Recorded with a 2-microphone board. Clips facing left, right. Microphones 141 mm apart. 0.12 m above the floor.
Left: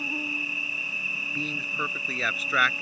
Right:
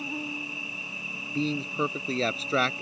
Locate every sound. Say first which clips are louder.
0.0 s an insect: even; centre (ahead or behind)
1.4 s a man speaking: right 7 dB; 30° right (ahead or behind)